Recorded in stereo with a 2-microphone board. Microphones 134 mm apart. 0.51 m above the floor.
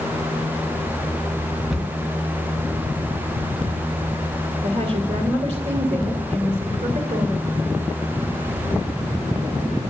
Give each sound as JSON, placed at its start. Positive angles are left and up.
{"t": 1.7, "sound": "a cupboard door", "side_deg": -5, "distance_m": 2.0}
{"t": 4.6, "sound": "a woman speaking", "side_deg": -50, "distance_m": 1.9}